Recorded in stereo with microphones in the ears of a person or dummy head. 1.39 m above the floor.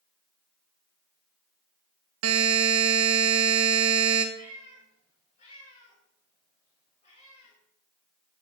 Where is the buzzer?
85° right, 1.1 m.